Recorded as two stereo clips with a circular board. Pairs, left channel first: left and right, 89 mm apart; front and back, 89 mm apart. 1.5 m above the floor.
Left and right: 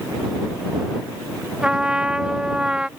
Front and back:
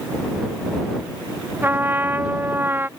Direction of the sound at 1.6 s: 155° right.